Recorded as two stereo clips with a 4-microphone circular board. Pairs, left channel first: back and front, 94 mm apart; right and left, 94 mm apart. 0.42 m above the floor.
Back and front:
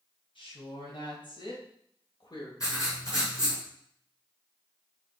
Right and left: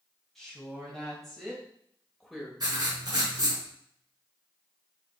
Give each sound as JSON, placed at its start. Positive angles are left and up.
{"t": 0.3, "sound": "a woman speaking", "azimuth_deg": 180, "distance_m": 3.0}
{"t": 2.6, "sound": "writing", "azimuth_deg": 130, "distance_m": 5.0}